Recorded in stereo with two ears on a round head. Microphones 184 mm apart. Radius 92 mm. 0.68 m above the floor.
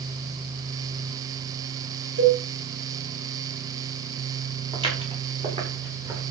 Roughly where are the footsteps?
Right.